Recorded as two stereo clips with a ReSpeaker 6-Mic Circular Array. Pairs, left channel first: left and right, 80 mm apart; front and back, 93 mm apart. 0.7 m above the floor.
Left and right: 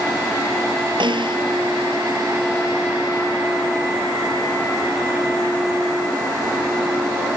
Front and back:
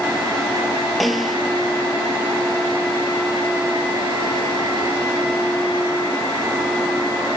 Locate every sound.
1.0 s a snare drum: 90° right